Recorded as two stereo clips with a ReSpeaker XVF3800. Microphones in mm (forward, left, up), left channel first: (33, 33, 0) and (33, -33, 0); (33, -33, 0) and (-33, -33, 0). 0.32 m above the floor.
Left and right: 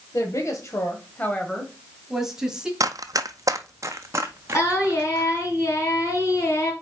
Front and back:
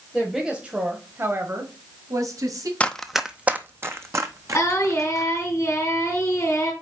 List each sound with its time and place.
0.1 s a woman speaking: 90° left, 1.4 m; by 2.7 s 165° right, 1.9 m
2.8 s running footsteps: 70° right, 0.5 m; by 5.5 s 150° right, 1.7 m
4.5 s singing: 45° left, 3 m